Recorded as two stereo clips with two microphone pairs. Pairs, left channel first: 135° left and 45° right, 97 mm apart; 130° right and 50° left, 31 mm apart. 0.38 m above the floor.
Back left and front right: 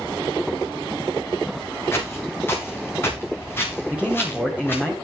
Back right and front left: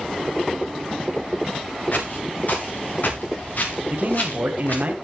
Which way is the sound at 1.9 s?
160° right.